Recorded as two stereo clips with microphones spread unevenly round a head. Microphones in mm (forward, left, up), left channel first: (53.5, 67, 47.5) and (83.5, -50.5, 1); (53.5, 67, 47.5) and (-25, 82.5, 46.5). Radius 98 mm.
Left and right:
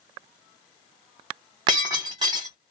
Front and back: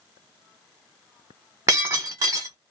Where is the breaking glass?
155° right, 1.0 m.